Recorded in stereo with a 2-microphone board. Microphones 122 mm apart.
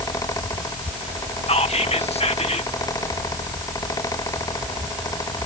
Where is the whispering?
60° left (ahead or behind).